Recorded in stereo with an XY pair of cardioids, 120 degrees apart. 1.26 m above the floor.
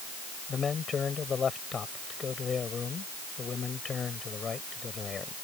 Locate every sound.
0.5 s a man speaking: 35° left